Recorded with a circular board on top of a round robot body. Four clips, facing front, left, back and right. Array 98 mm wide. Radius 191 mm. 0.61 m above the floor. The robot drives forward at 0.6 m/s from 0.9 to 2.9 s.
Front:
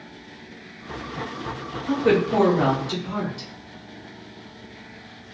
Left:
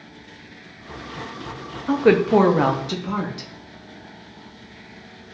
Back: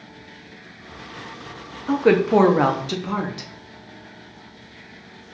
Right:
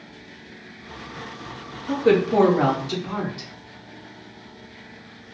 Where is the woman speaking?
115° left, 0.9 m; by 3.5 s 150° left, 1.2 m.